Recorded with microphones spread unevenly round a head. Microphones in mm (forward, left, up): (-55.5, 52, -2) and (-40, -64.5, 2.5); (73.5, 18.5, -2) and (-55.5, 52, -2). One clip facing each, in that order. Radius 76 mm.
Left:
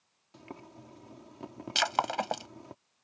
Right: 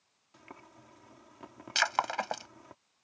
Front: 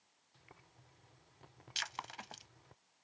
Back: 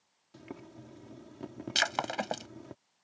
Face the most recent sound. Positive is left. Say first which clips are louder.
# left 1 dB, back 14 dB
turn(degrees=165)